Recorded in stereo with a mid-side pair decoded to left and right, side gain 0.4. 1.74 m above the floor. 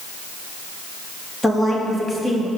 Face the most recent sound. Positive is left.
turn(degrees=0)